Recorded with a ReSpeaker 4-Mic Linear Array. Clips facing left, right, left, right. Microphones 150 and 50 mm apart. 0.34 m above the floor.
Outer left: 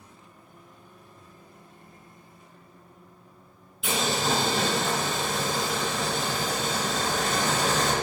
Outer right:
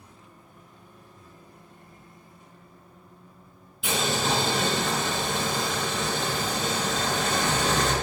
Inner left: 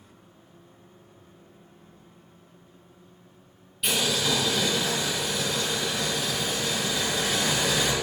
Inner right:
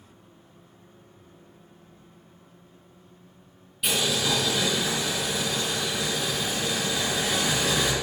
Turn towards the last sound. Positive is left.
turn(degrees=0)  # may be behind; listen again after turning